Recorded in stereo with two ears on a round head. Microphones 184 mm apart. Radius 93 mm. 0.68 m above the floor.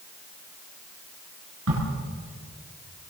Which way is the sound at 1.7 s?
70° right (ahead or behind).